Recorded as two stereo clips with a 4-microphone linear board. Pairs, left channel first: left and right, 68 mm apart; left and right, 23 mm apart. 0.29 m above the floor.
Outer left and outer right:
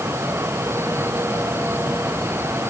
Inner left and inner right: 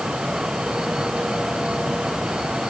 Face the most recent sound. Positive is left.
No sound to turn to.